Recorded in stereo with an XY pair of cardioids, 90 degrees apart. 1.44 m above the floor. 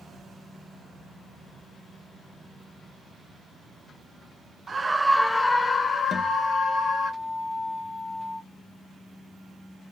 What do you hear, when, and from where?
4.7 s a scream: 40° right, 0.5 m; by 7.1 s 55° left, 1.8 m
6.1 s a guitar: 50° left, 1.2 m